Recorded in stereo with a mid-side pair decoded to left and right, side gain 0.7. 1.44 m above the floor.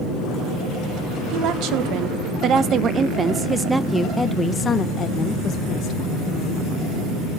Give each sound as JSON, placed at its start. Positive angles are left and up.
{"t": 1.3, "sound": "a woman speaking", "azimuth_deg": -60, "distance_m": 2.0}